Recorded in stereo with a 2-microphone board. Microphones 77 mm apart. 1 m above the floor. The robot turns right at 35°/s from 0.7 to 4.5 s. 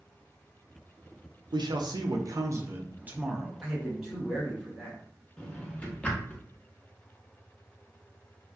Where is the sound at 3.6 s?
20° right, 1.3 m; by 5.0 s 10° left, 1.3 m.